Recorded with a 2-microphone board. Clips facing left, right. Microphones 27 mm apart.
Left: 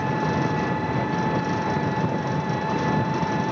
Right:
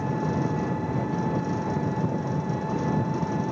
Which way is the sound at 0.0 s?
65° left (ahead or behind).